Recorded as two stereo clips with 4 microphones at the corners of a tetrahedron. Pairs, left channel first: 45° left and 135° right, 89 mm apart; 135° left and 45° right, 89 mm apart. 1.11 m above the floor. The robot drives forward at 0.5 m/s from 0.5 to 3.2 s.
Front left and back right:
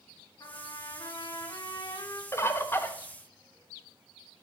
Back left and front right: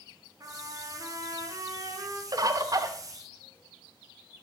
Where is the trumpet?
Straight ahead, 2.5 m; by 2.2 s 5° left, 1.6 m.